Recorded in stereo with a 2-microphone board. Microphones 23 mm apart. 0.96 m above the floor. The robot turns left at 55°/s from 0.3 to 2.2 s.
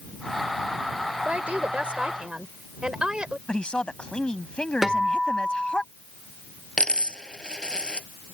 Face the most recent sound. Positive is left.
turn(degrees=40)  # may be behind; listen again after turning